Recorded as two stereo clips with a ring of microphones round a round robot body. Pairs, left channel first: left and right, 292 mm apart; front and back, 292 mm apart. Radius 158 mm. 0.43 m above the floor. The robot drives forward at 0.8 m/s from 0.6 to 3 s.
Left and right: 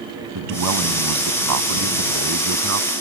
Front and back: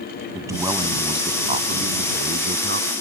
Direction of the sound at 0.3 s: 100° right.